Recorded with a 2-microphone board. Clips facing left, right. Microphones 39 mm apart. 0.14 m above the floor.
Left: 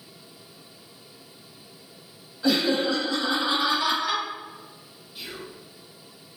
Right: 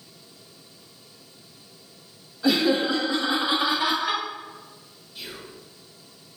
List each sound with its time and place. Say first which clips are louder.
2.4 s laughter: right 1 dB; centre (ahead or behind), 1.4 m; by 4.2 s 25° right (ahead or behind), 2 m
5.2 s whispering: left 1 dB; 15° left (ahead or behind), 1.4 m